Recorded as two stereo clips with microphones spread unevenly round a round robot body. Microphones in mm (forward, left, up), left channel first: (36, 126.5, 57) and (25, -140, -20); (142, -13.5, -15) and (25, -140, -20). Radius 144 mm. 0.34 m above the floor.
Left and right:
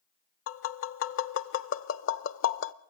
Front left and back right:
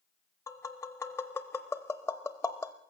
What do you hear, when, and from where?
0.5 s tapping: 120° left, 0.5 m